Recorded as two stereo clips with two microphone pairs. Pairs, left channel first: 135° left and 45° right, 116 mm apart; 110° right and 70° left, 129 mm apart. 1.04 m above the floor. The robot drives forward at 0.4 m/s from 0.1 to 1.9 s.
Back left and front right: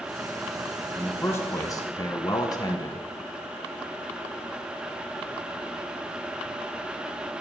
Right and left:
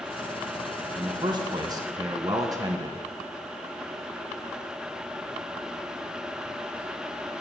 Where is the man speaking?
65° left, 0.8 m; by 3.1 s 110° left, 0.8 m.